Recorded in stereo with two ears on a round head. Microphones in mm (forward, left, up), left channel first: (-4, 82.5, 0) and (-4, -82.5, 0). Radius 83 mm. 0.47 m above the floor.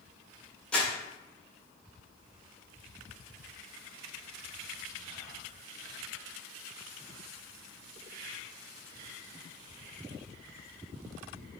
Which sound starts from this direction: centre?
Crumpling, at 0.7 s.